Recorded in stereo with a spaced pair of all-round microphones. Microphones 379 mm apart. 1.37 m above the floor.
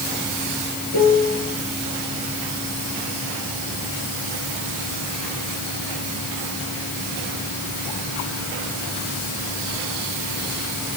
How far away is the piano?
About 4 m.